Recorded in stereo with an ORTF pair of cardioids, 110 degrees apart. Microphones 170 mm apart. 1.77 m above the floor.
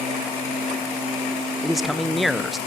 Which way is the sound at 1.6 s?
Straight ahead.